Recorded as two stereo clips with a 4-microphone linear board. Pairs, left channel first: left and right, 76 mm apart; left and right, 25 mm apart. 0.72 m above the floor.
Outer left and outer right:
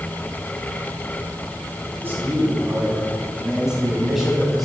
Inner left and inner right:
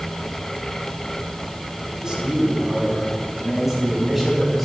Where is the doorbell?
I don't hear a doorbell.